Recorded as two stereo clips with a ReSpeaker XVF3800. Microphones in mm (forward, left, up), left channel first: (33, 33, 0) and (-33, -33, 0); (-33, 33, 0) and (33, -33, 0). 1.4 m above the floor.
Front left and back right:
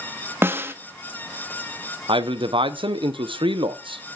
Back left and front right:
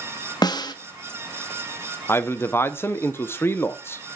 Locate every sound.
0.4 s a snare drum: 165° left, 0.8 m
2.1 s a man speaking: 160° right, 0.8 m